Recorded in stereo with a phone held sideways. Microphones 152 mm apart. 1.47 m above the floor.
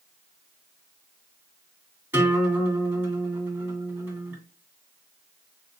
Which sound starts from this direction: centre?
A guitar, at 2.1 s.